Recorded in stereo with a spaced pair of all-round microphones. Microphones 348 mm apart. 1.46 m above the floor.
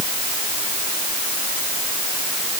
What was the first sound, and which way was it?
Only background noise.